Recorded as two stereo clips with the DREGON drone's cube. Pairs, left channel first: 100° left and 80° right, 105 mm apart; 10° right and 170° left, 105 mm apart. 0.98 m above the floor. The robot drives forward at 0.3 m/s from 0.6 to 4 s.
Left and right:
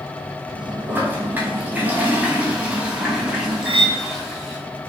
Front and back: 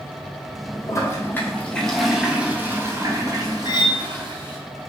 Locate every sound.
0.9 s a toilet flushing: 30° right, 0.7 m; by 4.6 s 165° right, 0.9 m
3.6 s cutlery clinking: 55° right, 0.5 m; by 4.0 s 65° right, 0.5 m